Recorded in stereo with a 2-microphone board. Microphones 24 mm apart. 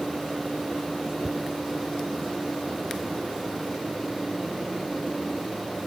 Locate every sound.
1.2 s a thud: 20° right (ahead or behind)